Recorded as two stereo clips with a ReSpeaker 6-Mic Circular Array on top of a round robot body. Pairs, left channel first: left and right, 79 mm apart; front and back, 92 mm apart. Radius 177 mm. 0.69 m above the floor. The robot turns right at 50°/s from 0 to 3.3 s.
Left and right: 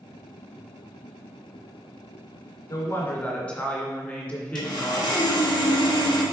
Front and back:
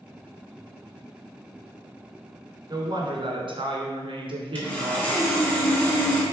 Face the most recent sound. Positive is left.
turn(degrees=70)